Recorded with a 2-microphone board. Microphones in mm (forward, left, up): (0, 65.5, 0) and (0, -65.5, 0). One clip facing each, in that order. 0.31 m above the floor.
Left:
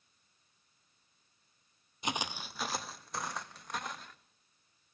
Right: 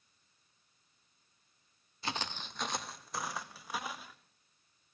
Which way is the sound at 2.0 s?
20° left (ahead or behind).